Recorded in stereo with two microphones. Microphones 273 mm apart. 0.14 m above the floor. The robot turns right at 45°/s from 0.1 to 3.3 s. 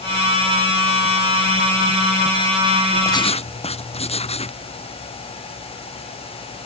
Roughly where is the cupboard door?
No cupboard door in this recording.